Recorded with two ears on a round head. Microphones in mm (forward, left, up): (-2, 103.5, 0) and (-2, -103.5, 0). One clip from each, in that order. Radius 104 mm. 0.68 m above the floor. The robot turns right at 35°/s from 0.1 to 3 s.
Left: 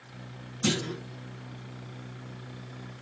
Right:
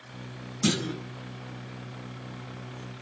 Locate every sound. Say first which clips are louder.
0.6 s a clunk: right 1 dB; 40° right (ahead or behind), 1.6 m; by 1.0 s 30° right (ahead or behind), 1.6 m